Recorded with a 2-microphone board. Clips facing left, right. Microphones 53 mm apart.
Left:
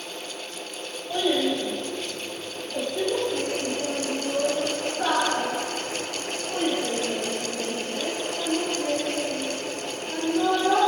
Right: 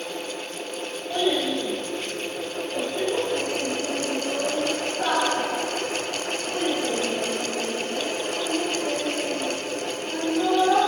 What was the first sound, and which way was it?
A child speaking, 5° left (ahead or behind).